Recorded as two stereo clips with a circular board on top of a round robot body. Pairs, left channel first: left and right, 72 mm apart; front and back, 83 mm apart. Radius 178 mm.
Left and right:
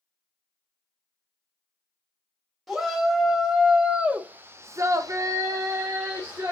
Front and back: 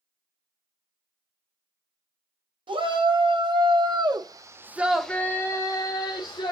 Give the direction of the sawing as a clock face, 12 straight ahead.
No sawing in this recording.